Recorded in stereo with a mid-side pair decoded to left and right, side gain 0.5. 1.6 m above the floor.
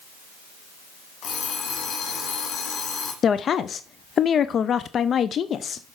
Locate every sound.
1.2 s an alarm clock: 55° left, 3 m
3.2 s a woman speaking: 45° left, 0.5 m